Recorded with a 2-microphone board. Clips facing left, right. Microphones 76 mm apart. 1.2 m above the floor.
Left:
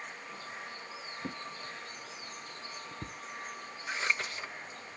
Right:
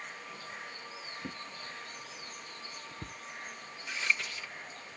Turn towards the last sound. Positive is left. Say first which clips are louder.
# left 1 dB
turn(degrees=35)  # may be behind; listen again after turning